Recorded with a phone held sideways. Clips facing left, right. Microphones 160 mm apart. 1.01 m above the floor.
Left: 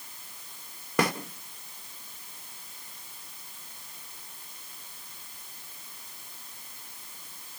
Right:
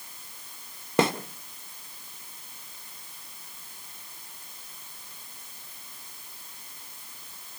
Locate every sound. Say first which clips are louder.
1.0 s a snare drum: right 3 dB; 25° right (ahead or behind), 1.6 m